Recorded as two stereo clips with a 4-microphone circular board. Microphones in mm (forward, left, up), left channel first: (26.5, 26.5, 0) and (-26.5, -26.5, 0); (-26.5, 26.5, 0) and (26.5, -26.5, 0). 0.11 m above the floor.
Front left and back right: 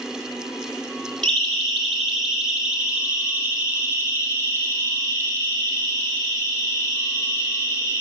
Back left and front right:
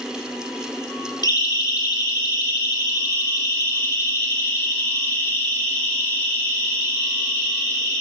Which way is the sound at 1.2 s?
125° left.